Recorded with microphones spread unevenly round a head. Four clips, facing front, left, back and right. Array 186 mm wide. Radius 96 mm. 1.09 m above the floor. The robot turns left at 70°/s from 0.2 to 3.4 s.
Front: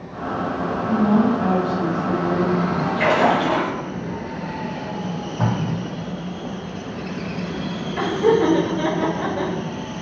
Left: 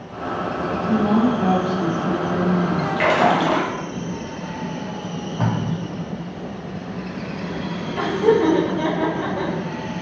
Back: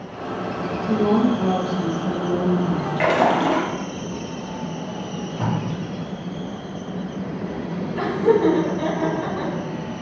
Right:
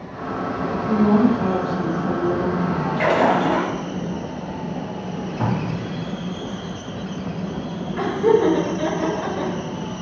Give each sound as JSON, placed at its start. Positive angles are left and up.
{"t": 0.9, "sound": "a woman speaking", "azimuth_deg": -140, "distance_m": 1.1}
{"t": 3.0, "sound": "a splash", "azimuth_deg": -175, "distance_m": 0.7}
{"t": 5.0, "sound": "tape being pulled", "azimuth_deg": 55, "distance_m": 0.9}
{"t": 8.0, "sound": "laughter", "azimuth_deg": 30, "distance_m": 1.2}